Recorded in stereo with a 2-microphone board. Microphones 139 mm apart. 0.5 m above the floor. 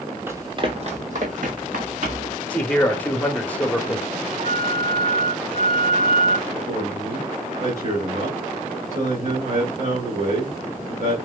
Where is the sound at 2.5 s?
10° left (ahead or behind), 1.0 m.